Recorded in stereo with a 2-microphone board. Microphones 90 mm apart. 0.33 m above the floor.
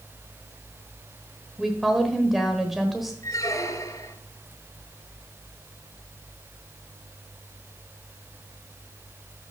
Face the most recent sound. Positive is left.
turn(degrees=40)  # may be behind; listen again after turning